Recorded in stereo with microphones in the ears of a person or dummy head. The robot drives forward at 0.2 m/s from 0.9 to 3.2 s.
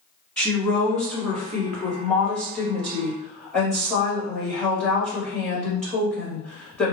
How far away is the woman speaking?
About 0.9 m.